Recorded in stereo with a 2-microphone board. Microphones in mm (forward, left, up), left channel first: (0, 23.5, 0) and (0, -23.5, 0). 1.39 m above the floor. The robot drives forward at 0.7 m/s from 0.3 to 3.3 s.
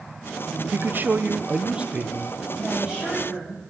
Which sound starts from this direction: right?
A man speaking, at 0.7 s.